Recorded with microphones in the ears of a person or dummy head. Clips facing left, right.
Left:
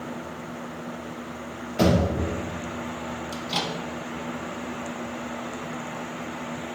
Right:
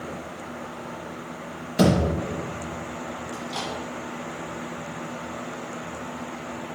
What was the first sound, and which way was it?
A thud, 25° right (ahead or behind).